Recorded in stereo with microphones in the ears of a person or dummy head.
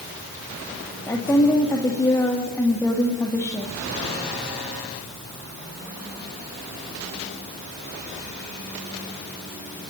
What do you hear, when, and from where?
1.1 s a woman speaking: 15° left (ahead or behind), 1.9 m